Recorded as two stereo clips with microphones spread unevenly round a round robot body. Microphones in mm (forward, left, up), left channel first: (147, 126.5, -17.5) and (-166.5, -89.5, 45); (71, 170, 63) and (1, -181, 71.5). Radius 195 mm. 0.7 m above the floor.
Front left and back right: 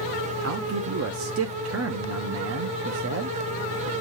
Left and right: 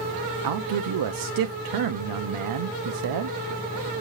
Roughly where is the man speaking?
Right.